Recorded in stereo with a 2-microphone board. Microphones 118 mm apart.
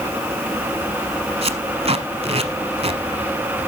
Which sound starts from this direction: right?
Tape being pulled, at 1.4 s.